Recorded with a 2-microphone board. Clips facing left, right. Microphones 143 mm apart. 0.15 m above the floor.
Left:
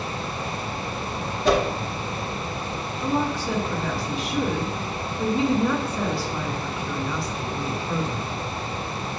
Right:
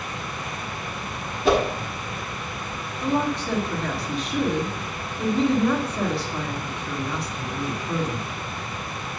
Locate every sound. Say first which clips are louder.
1.4 s a whoosh: right 1 dB; 5° right (ahead or behind), 1.8 m
3.0 s a woman speaking: right 1 dB; centre (ahead or behind), 1.7 m